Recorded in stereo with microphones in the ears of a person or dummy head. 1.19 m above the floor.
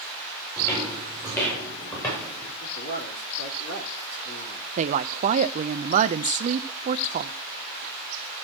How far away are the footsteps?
About 8 m.